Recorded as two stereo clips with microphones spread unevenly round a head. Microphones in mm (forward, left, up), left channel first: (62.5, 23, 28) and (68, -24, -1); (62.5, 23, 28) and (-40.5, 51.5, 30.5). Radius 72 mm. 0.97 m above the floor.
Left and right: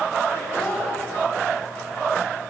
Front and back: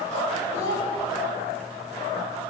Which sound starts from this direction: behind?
A child speaking, at 0.5 s.